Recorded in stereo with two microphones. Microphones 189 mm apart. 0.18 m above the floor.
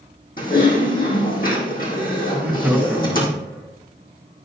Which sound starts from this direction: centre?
Laughter, at 2.3 s.